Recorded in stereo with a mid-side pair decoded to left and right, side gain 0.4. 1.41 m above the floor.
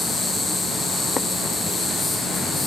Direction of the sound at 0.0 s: 45° left.